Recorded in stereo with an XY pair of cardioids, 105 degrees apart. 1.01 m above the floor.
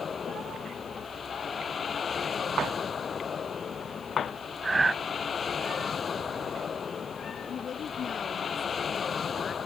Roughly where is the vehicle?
Ahead left.